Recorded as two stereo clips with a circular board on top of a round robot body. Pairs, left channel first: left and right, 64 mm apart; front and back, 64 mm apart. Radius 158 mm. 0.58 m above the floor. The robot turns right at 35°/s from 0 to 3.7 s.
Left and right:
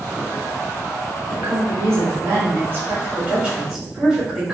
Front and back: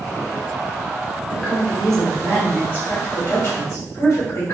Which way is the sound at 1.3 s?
100° right.